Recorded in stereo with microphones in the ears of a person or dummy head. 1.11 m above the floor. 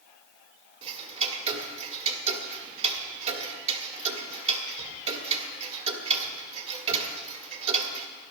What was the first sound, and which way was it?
Ticking, 40° right (ahead or behind).